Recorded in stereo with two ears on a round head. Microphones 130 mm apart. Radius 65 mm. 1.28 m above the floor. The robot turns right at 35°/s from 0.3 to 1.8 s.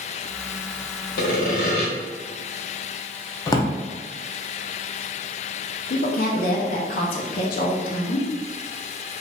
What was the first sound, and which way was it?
Sawing, 70° left (ahead or behind).